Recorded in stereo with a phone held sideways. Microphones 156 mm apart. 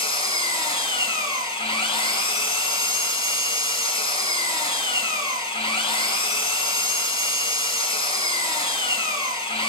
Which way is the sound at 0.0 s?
35° left (ahead or behind).